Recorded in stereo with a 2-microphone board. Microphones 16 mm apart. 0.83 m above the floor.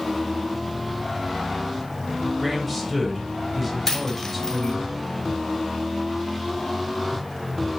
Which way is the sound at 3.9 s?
30° left (ahead or behind).